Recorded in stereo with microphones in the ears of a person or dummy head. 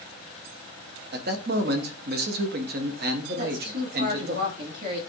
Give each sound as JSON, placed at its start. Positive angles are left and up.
{"t": 1.1, "sound": "a man speaking", "side_deg": -55, "distance_m": 0.8}
{"t": 3.4, "sound": "a woman speaking", "side_deg": -60, "distance_m": 1.9}